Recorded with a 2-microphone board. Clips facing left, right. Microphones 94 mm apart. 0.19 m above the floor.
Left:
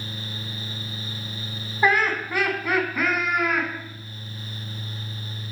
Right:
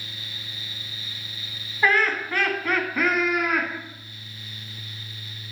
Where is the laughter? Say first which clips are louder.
Left 1 dB; 20° left (ahead or behind), 1.4 m; by 3.7 s 5° right (ahead or behind), 1.9 m.